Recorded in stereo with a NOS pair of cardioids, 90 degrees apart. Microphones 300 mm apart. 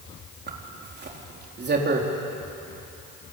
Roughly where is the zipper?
Ahead right.